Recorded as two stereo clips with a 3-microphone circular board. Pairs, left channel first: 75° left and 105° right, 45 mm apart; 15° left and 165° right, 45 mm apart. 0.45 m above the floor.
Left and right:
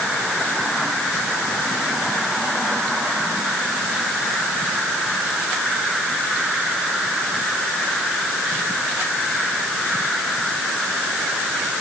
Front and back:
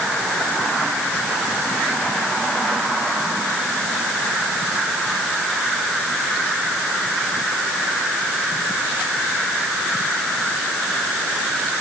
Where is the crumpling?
No crumpling in this recording.